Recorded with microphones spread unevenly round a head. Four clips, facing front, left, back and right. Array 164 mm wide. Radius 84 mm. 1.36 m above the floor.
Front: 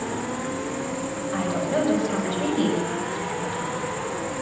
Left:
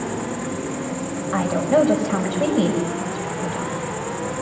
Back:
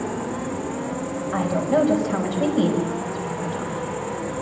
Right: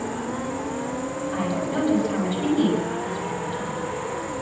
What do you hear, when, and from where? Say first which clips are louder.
0.0 s an insect: left 2 dB, back 1 dB; 70° left, 8 m
1.3 s a woman speaking: left 9 dB, back 4 dB; 95° left, 6 m